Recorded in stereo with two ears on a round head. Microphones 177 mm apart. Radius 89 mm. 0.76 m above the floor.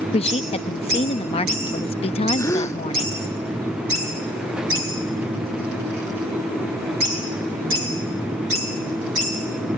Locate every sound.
0.1 s a woman speaking: 30° left (ahead or behind)
2.4 s a gasp: 15° left (ahead or behind)